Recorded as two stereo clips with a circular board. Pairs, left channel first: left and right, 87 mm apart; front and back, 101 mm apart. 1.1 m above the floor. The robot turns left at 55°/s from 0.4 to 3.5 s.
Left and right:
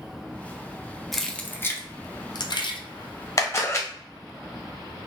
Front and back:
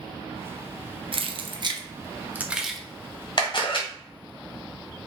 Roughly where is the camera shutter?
Ahead left.